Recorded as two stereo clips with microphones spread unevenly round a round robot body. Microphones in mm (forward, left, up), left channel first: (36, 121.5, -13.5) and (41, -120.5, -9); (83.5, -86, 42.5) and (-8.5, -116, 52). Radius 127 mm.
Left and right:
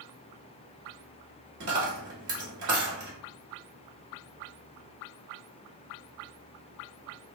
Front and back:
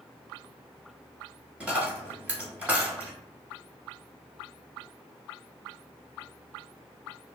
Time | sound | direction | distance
1.6 | a dropped coin | 90° right | 1.4 m